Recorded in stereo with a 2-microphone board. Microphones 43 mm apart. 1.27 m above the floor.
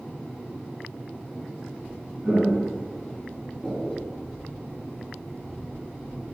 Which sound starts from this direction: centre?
Footsteps, at 2.2 s.